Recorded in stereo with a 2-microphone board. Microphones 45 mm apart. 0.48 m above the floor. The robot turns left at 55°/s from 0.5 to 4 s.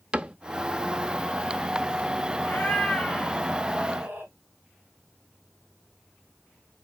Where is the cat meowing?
45° left, 3 m; by 4.3 s 45° right, 3 m.